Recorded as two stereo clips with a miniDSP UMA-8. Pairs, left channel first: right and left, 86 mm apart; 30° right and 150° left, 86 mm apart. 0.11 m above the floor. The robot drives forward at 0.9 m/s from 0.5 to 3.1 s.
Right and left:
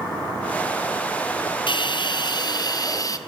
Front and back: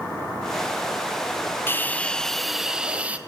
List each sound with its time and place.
1.7 s a hiss: 90° right, 1.4 m; by 3.2 s 135° right, 1.9 m